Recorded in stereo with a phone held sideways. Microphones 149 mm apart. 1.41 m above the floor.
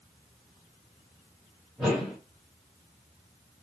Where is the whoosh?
Centre (ahead or behind), 3.5 m.